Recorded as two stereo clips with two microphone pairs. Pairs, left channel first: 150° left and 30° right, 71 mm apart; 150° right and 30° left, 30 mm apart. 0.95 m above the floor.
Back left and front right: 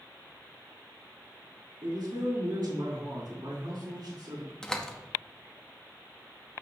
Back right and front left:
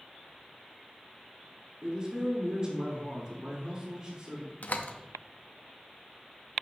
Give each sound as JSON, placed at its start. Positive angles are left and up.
{"t": 1.8, "sound": "a man speaking", "azimuth_deg": -30, "distance_m": 3.5}
{"t": 4.6, "sound": "a door slam", "azimuth_deg": -130, "distance_m": 0.8}